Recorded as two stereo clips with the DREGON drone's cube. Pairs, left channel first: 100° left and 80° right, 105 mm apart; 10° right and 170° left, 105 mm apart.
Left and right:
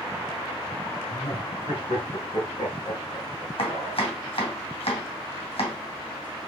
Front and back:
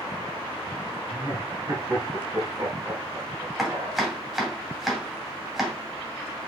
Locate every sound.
1.1 s laughter: 110° left, 5 m
3.6 s chopping: 85° left, 2.5 m